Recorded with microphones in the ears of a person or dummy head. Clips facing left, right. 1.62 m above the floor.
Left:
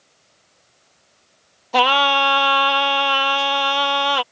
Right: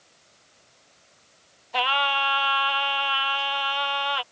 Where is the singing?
60° left (ahead or behind).